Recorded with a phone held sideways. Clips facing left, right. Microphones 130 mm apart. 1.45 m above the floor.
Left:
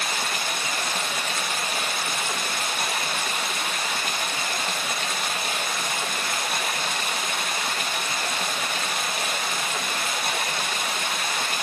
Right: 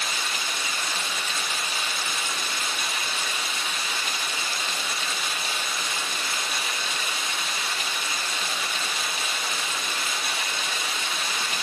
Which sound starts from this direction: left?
Running water, at 0.0 s.